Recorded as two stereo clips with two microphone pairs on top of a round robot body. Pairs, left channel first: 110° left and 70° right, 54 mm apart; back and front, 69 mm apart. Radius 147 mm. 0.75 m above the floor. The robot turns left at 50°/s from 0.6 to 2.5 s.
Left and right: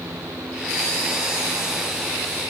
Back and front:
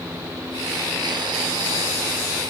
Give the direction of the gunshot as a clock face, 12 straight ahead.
No gunshot in this recording.